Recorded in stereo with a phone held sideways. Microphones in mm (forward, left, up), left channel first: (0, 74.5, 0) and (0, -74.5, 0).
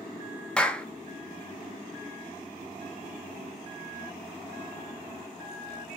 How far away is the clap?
About 1.1 m.